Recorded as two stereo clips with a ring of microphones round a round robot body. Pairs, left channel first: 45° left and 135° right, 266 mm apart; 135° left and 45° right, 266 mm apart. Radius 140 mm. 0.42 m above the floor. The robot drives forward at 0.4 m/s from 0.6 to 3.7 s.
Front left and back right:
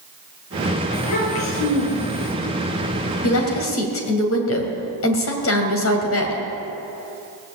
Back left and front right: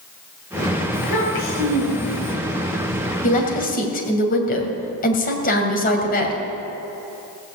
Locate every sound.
0.9 s a child speaking: 85° left, 7 m; by 2.3 s 90° left, 7 m
3.2 s a woman speaking: 75° left, 2.5 m; by 6.4 s 80° left, 2.5 m